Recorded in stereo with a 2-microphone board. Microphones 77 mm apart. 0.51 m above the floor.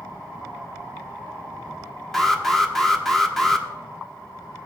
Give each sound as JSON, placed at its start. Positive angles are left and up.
{"t": 2.1, "sound": "an alarm", "side_deg": 5, "distance_m": 1.1}